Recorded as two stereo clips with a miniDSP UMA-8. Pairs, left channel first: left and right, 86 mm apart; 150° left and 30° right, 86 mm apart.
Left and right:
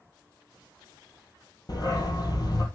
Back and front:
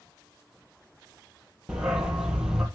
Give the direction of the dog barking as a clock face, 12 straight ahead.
10 o'clock.